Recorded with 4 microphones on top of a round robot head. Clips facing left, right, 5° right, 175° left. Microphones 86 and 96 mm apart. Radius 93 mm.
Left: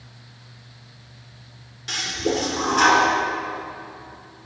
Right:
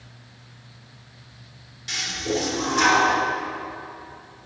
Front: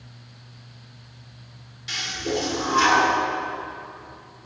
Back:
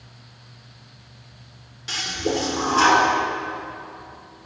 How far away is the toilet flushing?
About 1.8 m.